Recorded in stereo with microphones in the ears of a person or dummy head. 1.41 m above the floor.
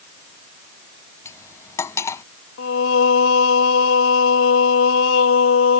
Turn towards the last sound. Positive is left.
turn(degrees=75)  # may be behind; listen again after turning